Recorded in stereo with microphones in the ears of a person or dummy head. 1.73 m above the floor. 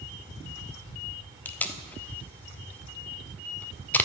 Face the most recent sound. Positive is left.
turn(degrees=10)  # may be behind; listen again after turning